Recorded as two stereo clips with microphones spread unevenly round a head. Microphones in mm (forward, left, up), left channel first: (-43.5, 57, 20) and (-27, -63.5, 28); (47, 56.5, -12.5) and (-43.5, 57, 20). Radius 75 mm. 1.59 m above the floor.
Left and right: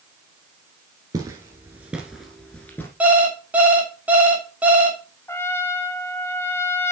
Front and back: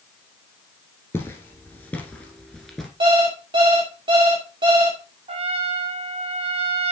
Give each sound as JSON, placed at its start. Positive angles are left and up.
{"t": 1.1, "sound": "footsteps", "azimuth_deg": -90, "distance_m": 1.7}
{"t": 3.0, "sound": "an alarm clock", "azimuth_deg": -160, "distance_m": 2.0}
{"t": 5.3, "sound": "a trumpet", "azimuth_deg": 170, "distance_m": 1.0}